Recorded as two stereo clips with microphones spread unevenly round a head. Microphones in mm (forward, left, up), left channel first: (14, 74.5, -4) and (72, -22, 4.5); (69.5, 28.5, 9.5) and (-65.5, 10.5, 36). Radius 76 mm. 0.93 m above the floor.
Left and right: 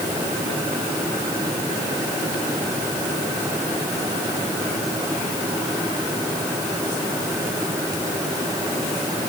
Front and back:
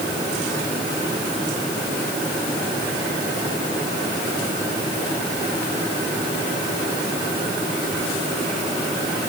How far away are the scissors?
I don't hear scissors.